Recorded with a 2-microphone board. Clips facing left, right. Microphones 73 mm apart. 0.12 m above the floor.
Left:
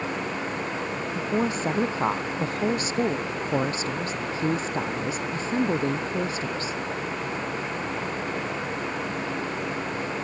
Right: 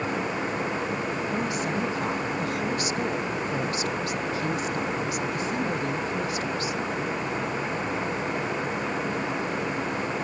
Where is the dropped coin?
I don't hear a dropped coin.